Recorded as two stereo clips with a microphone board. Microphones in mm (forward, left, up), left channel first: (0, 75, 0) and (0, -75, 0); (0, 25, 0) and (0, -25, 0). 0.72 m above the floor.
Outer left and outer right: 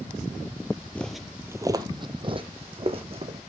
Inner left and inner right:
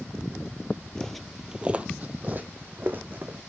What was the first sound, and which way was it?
Footsteps, 10° left (ahead or behind).